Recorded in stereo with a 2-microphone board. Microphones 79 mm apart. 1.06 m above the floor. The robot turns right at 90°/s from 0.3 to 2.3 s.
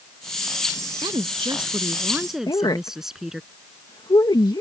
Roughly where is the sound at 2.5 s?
Left.